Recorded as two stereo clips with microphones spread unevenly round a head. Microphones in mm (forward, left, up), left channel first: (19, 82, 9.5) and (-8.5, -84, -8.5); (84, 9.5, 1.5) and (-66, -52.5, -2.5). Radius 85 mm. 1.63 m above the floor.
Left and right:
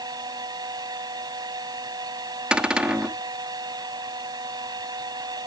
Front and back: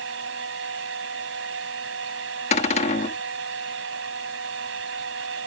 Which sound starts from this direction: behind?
A fan, at 0.0 s.